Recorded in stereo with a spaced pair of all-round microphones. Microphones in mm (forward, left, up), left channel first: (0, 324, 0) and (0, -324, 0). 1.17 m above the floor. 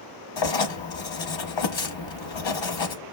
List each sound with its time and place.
0.4 s writing: 45° left (ahead or behind), 0.7 m